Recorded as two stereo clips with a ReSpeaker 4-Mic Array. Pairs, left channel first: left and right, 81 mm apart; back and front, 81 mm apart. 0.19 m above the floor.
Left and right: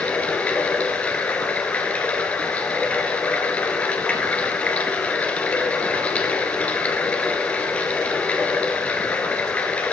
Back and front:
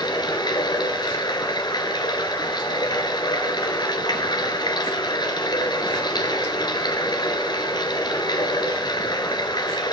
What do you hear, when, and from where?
0.0 s running water: 160° left, 1.7 m